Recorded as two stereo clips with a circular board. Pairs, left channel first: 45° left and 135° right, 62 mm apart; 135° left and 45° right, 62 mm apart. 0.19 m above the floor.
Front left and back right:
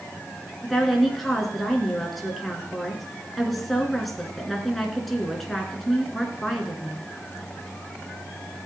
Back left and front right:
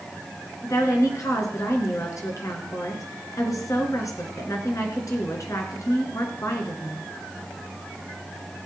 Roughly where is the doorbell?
I don't hear a doorbell.